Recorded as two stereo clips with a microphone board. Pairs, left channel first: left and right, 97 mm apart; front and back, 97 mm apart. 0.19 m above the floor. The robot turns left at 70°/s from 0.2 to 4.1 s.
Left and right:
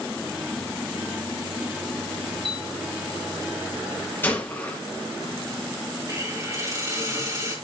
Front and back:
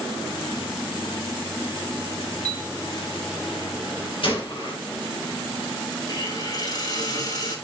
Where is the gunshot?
20° left, 3 m.